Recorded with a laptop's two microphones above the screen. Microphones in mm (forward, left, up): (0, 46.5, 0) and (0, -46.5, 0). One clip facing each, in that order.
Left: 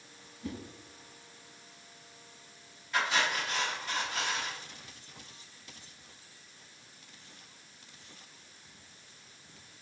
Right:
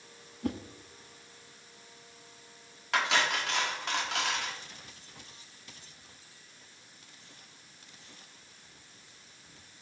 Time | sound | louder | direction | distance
0.4 | a whoosh | right 6 dB | 60° right (ahead or behind) | 0.7 m
2.9 | cutlery clinking | right 2 dB | 80° right | 1.6 m